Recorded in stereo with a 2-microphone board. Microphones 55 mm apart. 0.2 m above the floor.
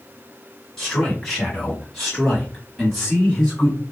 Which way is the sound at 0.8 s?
Centre (ahead or behind).